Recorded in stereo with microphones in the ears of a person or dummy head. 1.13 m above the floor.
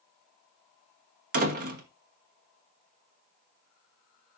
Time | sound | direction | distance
1.3 | a door slam | 55° right (ahead or behind) | 1.1 m